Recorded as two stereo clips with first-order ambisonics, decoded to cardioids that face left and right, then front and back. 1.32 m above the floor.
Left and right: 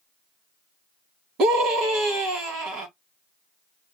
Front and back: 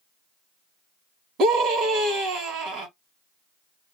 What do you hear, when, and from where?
1.4 s a scream: 135° right, 1.6 m